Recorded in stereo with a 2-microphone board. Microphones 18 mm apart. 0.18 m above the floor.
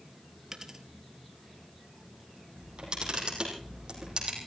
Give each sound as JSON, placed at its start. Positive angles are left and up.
{"t": 0.5, "sound": "a dropped coin", "side_deg": -30, "distance_m": 1.4}
{"t": 2.6, "sound": "a camera shutter", "side_deg": -45, "distance_m": 6.0}